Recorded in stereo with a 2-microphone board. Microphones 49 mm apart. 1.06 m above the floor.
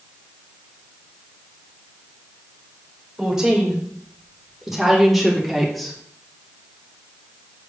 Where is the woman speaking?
10° right (ahead or behind), 5 m; by 6.0 s 5° left (ahead or behind), 2.5 m.